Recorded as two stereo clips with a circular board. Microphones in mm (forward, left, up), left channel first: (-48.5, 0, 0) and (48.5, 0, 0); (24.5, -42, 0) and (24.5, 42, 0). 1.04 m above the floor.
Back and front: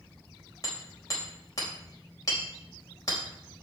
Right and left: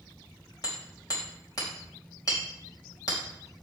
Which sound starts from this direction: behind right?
Hammering, at 0.6 s.